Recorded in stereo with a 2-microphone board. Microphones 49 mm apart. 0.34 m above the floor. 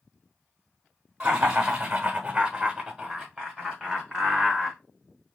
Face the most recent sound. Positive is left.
turn(degrees=10)  # may be behind; listen again after turning